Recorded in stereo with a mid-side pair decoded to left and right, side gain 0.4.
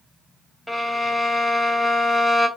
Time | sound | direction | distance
0.7 | a violin | 5° left | 1.5 m